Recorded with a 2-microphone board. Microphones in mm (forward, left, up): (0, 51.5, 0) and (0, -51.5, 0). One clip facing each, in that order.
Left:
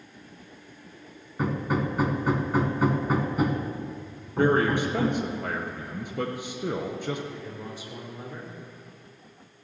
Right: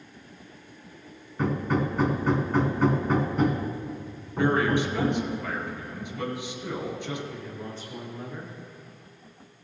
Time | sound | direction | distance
1.4 | hammering | 10° left (ahead or behind) | 1.4 m
4.4 | a man speaking | 45° left (ahead or behind) | 2.0 m
7.3 | a man speaking | 10° left (ahead or behind) | 4.5 m